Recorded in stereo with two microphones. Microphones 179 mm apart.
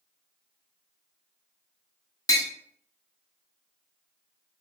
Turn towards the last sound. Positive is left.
turn(degrees=20)  # may be behind; listen again after turning